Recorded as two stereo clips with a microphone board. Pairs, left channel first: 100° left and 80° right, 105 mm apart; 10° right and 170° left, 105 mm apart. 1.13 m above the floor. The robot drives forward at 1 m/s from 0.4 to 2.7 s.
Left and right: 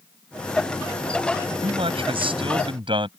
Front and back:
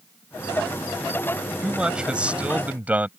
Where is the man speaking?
105° right; by 3.1 s 115° right.